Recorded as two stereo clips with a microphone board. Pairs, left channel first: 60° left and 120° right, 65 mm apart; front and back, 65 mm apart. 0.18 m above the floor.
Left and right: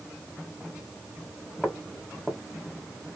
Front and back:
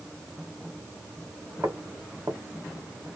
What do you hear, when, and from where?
1.6 s footsteps: 150° left, 1.4 m